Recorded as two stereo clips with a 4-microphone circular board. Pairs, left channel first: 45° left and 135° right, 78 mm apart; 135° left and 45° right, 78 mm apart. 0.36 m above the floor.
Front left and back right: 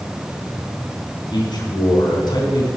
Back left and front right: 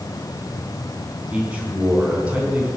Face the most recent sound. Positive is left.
turn(degrees=25)